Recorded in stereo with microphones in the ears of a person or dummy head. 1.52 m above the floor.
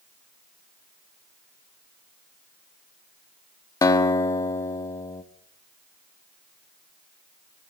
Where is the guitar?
20° left (ahead or behind), 1.4 m.